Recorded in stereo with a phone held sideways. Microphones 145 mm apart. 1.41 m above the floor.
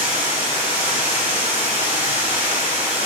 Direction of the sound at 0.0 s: 15° right (ahead or behind).